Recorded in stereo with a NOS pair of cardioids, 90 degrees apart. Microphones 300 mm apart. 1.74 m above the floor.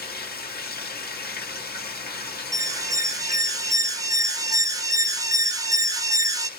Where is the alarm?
10° right, 0.8 m.